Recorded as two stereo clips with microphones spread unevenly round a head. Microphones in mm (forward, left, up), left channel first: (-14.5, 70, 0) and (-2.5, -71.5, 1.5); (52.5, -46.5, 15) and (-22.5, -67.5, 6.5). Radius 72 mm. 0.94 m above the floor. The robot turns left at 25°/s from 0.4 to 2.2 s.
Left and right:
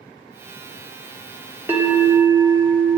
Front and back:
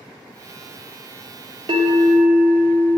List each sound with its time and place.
1.7 s a bell: 160° right, 1.1 m; by 3.0 s 175° right, 1.1 m